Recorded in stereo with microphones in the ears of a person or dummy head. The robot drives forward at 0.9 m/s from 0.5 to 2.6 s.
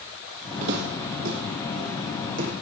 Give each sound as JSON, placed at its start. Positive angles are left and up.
{"t": 0.6, "sound": "footsteps", "side_deg": -50, "distance_m": 2.5}